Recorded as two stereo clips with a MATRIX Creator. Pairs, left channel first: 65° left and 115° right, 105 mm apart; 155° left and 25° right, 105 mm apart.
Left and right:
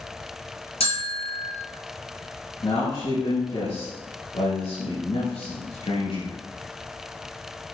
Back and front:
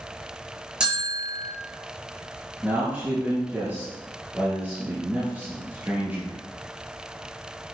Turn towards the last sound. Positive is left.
turn(degrees=50)